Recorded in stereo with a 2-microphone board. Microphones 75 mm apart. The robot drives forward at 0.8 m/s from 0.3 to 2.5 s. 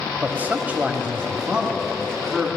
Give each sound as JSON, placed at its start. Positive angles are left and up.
{"t": 0.2, "sound": "a man speaking", "side_deg": -20, "distance_m": 0.9}